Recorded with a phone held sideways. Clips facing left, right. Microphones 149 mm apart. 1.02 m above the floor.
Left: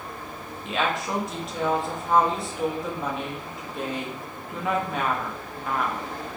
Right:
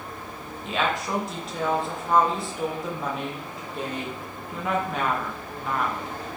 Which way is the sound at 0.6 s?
Centre (ahead or behind).